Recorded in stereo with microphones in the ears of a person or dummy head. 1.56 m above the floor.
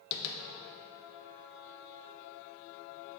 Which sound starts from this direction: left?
Tapping, at 0.1 s.